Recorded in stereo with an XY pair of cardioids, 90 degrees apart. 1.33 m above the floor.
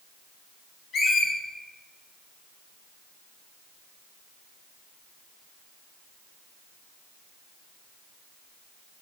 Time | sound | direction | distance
0.9 | a squeak | 70° left | 0.8 m